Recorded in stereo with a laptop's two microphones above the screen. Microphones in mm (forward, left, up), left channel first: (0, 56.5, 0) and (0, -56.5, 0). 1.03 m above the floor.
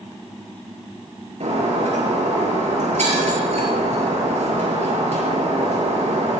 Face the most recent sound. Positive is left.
turn(degrees=-85)